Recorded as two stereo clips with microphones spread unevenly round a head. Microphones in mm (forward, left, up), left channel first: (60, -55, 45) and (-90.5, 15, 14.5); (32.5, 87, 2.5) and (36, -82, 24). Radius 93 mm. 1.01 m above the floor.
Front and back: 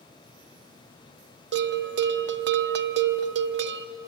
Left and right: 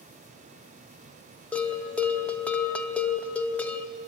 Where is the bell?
175° left, 1.0 m.